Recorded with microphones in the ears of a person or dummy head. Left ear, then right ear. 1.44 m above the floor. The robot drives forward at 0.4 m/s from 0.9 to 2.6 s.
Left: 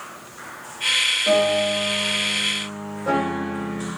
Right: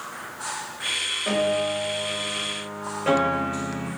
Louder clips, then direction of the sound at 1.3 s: Left 5 dB; 70° right (ahead or behind).